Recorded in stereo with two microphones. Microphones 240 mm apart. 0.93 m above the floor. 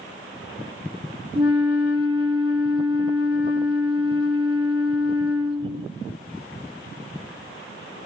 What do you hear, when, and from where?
1.4 s a flute: 25° right (ahead or behind), 2.5 m